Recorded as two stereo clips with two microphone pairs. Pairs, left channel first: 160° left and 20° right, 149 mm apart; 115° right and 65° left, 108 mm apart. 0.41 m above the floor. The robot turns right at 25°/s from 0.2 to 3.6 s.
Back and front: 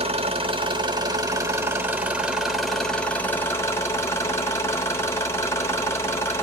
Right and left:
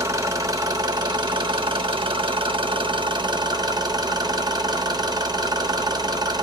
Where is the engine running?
10° left, 0.8 m; by 6.4 s 95° left, 0.8 m.